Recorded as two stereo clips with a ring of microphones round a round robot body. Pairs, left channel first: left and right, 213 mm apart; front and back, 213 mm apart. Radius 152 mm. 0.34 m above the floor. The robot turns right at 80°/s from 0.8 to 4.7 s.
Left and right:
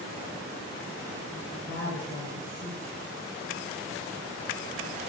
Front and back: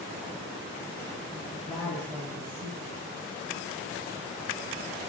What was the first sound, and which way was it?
A woman speaking, 55° left.